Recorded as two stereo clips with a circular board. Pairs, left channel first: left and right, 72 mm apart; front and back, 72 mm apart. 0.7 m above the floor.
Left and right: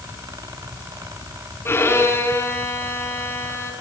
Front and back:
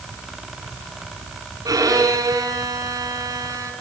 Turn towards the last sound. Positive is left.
turn(degrees=150)